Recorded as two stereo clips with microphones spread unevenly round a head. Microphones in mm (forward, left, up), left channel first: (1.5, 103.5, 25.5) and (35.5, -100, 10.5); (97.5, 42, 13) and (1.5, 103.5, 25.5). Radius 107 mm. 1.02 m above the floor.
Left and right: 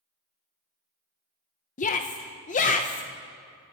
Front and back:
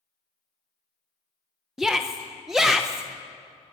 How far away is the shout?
About 0.8 m.